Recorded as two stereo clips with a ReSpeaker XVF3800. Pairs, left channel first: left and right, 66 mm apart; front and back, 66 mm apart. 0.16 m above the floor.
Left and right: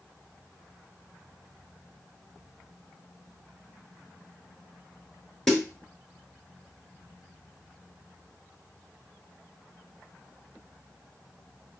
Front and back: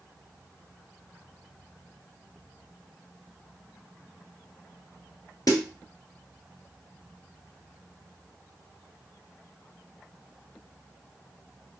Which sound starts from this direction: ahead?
A snare drum, at 5.5 s.